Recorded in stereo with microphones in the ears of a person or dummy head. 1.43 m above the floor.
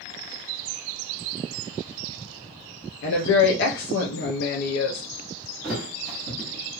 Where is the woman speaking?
70° left (ahead or behind), 0.7 m.